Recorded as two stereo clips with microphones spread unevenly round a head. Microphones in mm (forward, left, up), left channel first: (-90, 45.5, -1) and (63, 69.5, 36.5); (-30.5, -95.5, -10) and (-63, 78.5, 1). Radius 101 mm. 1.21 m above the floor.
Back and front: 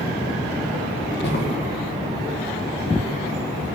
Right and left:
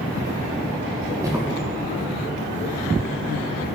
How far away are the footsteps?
About 4.5 m.